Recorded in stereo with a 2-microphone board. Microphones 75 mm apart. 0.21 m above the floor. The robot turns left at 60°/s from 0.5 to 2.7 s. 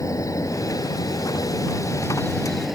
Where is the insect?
130° left; by 2.8 s 5° right.